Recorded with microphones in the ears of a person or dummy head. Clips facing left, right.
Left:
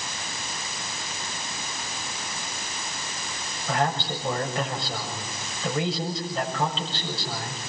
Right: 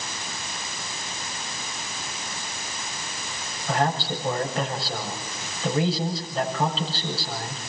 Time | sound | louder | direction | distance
3.7 | a man speaking | right 1 dB | centre (ahead or behind) | 7 m